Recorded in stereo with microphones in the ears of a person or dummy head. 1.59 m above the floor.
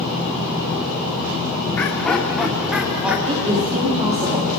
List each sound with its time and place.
1.8 s laughter: 15° left (ahead or behind), 1.2 m; by 3.1 s centre (ahead or behind), 1.9 m
3.2 s a woman speaking: 40° right (ahead or behind), 3 m